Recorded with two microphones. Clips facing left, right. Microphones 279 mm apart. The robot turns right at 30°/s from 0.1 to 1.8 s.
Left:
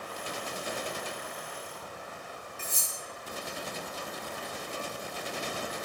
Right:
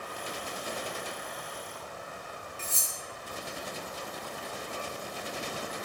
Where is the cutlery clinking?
10° right (ahead or behind), 1.2 m.